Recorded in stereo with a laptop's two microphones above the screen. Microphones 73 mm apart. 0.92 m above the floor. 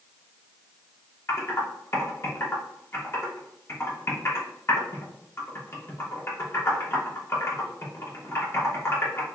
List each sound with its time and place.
1.3 s typing on a keyboard: 35° left (ahead or behind), 1.2 m